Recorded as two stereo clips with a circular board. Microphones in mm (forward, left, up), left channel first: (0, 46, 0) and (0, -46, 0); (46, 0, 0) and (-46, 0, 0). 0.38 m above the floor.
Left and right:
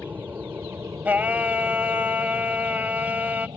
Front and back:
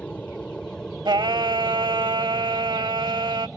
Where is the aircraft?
55° right; by 3.6 s 95° right.